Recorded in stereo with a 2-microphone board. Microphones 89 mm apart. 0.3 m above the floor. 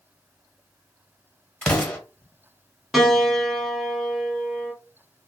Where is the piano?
5° right (ahead or behind), 0.9 m.